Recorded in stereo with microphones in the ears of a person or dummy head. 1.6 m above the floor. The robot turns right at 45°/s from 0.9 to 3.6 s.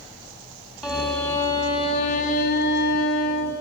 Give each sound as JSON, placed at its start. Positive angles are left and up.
{"t": 0.8, "sound": "a violin", "azimuth_deg": -10, "distance_m": 3.5}